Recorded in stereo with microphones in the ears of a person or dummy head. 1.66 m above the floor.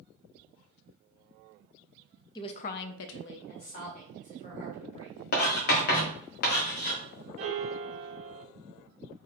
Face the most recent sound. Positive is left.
turn(degrees=-40)  # may be behind; listen again after turning